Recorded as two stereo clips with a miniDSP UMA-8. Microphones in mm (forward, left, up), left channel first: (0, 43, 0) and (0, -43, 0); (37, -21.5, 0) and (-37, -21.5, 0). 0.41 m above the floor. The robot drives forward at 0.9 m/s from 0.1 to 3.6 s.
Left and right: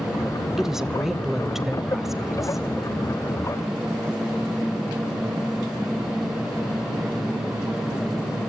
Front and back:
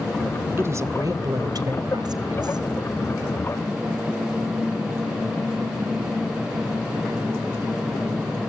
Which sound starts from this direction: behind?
A woman speaking, at 0.6 s.